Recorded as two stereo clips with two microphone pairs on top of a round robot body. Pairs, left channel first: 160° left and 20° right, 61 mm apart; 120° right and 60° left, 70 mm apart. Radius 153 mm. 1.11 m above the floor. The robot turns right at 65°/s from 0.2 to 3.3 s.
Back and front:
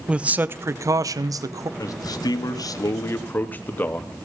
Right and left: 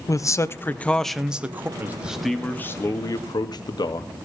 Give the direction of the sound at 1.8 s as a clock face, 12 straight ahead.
8 o'clock.